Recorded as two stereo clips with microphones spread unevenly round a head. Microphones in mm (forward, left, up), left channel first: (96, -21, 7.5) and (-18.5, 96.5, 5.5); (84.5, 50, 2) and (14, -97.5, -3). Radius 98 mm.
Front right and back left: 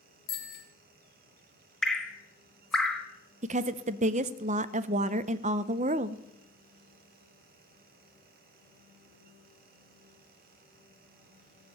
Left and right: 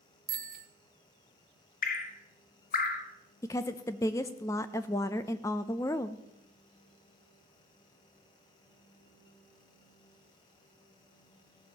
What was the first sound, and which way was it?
A bicycle bell, 90° right.